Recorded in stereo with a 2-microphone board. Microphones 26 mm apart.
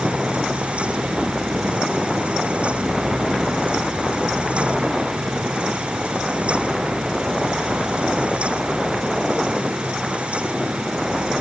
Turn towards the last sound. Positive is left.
No sound to turn to.